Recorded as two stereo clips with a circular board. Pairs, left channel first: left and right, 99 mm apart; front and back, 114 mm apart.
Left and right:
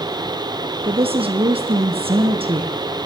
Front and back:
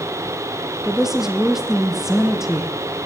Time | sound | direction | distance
0.8 | a woman speaking | 95° right | 4 m